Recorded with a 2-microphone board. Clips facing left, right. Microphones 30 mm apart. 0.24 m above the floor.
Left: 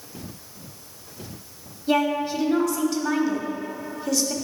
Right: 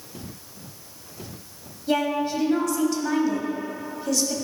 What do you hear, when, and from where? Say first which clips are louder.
1.9 s a woman speaking: left 1 dB; 5° left (ahead or behind), 1.3 m